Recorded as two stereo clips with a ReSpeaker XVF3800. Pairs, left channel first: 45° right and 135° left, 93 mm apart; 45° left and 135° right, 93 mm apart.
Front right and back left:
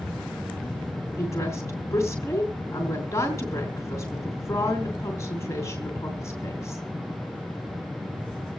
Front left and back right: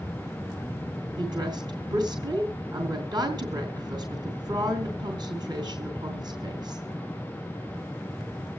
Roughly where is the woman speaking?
Right.